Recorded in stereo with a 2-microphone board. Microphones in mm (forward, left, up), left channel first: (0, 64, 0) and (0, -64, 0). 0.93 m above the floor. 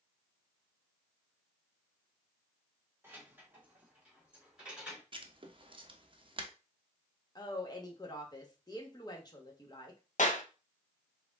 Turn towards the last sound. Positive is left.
turn(degrees=75)  # may be behind; listen again after turning